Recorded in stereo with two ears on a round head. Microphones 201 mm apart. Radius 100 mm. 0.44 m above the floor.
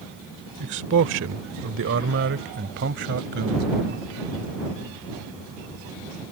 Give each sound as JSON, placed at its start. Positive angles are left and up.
{"t": 0.6, "sound": "a man speaking", "side_deg": -55}